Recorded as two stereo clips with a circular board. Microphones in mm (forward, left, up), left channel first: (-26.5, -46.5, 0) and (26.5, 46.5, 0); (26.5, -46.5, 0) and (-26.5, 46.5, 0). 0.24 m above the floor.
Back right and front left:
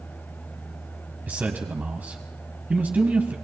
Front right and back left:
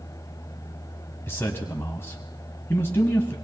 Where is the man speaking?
5° right, 1.5 m.